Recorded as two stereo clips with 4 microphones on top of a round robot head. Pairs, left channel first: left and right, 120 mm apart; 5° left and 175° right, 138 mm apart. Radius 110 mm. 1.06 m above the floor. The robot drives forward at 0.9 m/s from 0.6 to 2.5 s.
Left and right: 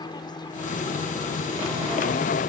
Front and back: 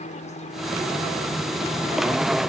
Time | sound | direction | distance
0.0 | an aircraft | 40° left | ?